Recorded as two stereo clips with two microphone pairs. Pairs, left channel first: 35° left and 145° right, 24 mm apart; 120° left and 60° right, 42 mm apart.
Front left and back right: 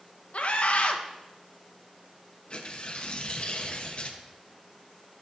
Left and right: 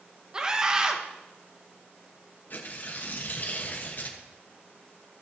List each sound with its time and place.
0.3 s a scream: 10° left, 1.2 m
2.5 s tearing paper: 75° left, 1.1 m